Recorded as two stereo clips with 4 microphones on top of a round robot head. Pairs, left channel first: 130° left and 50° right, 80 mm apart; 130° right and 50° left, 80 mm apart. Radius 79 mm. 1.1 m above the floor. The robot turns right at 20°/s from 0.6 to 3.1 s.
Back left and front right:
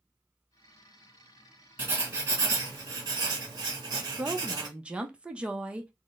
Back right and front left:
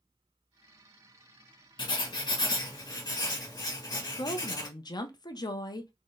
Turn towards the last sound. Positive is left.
turn(degrees=-125)